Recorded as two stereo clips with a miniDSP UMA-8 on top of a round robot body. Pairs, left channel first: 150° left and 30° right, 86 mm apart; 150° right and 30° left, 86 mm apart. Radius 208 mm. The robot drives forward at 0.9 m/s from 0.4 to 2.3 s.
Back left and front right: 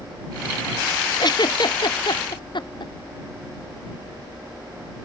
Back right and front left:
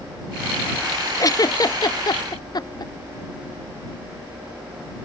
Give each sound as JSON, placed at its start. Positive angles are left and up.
{"t": 1.2, "sound": "a giggle", "azimuth_deg": 170}